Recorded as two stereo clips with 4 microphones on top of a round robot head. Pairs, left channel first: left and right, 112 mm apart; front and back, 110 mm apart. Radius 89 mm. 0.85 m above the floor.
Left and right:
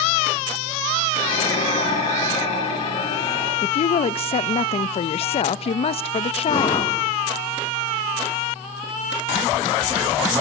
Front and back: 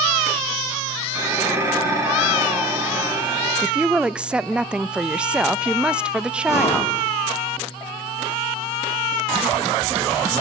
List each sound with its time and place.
1.1 s dishes clattering: 115° left, 9 m
3.6 s a woman speaking: 100° left, 0.5 m
6.5 s breathing: 25° left, 7 m